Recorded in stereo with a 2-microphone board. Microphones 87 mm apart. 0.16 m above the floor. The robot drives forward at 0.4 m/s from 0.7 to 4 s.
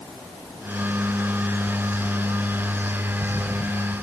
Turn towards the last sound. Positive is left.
No sound to turn to.